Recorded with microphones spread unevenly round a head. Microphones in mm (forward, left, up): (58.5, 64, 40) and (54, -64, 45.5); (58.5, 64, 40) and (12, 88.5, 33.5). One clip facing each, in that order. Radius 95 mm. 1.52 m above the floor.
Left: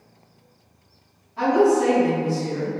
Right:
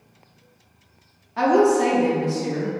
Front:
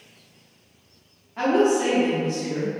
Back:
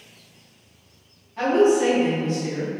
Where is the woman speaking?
105° right, 0.6 m.